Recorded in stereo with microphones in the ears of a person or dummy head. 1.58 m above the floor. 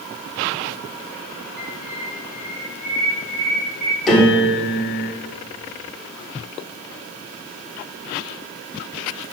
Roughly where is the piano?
Centre.